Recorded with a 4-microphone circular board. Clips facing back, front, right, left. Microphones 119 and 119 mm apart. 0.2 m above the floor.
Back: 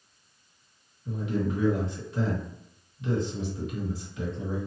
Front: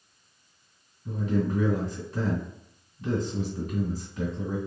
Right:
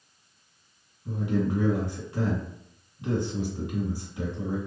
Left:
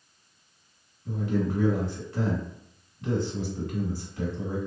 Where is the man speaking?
25° right, 1.9 m.